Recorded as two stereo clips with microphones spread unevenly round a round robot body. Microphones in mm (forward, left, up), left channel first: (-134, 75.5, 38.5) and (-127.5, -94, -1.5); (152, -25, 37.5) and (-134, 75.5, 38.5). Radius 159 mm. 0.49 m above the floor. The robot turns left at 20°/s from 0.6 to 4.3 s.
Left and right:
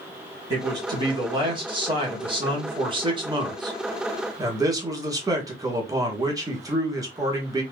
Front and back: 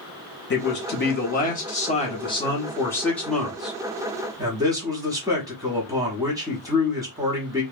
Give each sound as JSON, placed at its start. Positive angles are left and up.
{"t": 0.5, "sound": "a man speaking", "azimuth_deg": -50, "distance_m": 1.0}